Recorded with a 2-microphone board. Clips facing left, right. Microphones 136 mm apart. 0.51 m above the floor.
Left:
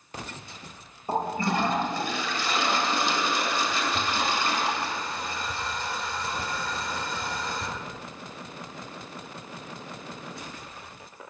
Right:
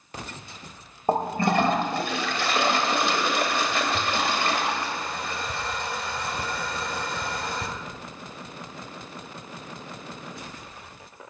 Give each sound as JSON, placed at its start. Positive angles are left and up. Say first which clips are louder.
{"t": 1.1, "sound": "a toilet flushing", "louder": "right 4 dB", "side_deg": -65, "distance_m": 2.0}